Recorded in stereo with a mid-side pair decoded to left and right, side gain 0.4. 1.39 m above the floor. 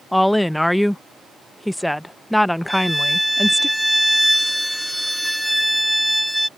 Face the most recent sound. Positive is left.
turn(degrees=5)